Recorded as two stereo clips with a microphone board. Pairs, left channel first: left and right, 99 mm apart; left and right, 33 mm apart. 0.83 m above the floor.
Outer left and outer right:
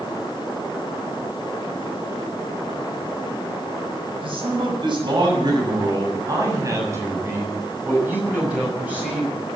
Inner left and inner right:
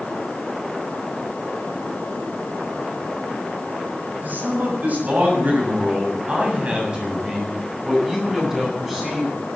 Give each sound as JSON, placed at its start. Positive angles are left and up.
{"t": 4.2, "sound": "a man speaking", "side_deg": -60, "distance_m": 7.0}